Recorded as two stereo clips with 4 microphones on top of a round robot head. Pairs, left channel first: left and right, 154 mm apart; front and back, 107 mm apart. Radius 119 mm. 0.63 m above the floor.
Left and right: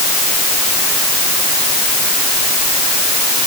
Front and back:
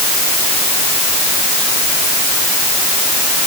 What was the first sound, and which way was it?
Only background noise.